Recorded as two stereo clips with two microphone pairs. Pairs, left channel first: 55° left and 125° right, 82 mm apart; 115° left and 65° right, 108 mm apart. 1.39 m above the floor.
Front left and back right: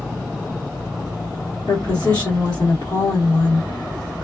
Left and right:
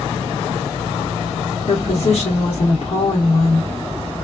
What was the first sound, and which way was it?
A woman speaking, 95° left.